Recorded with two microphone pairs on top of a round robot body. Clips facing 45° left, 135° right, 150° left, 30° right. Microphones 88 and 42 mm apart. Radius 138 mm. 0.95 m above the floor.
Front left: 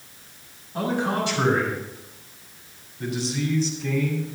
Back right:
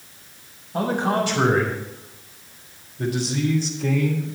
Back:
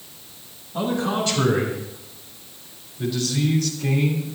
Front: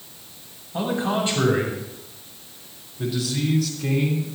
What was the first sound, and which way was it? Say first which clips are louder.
A man speaking: back right 3 dB, even; 95° right.